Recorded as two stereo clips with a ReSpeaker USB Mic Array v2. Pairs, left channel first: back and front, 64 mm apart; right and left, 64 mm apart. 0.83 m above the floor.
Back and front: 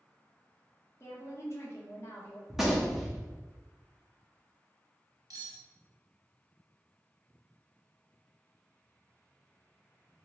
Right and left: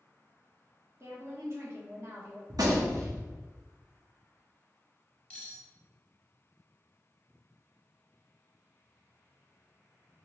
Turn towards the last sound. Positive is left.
turn(degrees=-20)